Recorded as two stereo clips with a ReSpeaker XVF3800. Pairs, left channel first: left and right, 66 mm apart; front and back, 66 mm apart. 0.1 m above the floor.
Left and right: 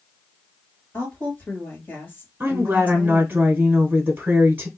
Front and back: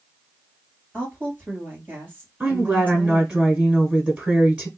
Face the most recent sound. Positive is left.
turn(degrees=-115)